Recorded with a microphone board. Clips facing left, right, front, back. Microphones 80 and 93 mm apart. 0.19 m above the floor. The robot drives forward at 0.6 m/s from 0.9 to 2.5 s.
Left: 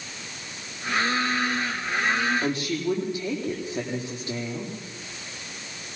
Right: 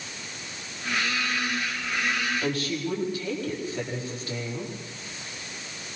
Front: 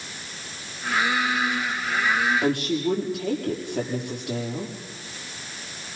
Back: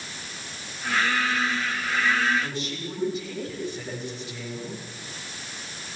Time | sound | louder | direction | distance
2.4 | a woman speaking | left 2 dB, front 9 dB | 20° left | 8 m